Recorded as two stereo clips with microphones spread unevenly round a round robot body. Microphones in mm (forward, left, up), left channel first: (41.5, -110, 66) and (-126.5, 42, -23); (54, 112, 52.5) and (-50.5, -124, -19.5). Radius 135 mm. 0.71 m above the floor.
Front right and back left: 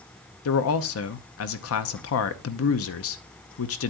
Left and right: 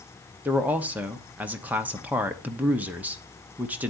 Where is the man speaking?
50° right, 0.9 m.